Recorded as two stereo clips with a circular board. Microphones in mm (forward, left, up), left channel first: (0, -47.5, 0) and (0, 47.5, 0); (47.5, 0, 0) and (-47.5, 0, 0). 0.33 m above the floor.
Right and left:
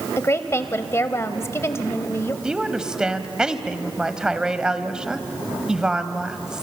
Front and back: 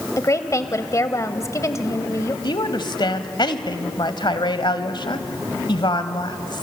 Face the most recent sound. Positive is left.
turn(degrees=10)